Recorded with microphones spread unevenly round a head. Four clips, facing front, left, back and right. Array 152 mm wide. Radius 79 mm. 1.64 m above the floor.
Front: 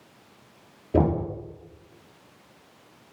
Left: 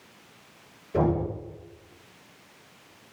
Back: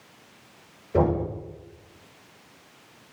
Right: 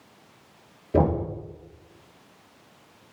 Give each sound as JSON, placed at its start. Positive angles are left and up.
{"t": 0.9, "sound": "knocking", "azimuth_deg": -40, "distance_m": 3.0}